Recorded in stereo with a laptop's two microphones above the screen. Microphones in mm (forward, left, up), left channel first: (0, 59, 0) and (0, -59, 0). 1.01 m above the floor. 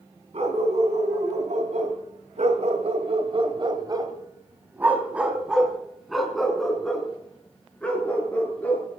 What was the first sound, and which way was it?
A dog barking, 65° right (ahead or behind).